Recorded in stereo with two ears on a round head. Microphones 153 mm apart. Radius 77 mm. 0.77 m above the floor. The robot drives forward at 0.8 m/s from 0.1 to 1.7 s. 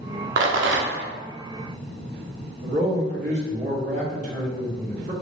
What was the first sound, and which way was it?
A rattle, 70° right (ahead or behind).